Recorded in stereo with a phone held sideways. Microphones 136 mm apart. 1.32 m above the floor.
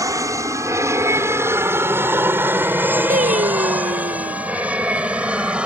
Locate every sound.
0.0 s an aircraft: 25° right (ahead or behind); by 5.7 s 5° right (ahead or behind)
3.1 s singing: 75° right (ahead or behind)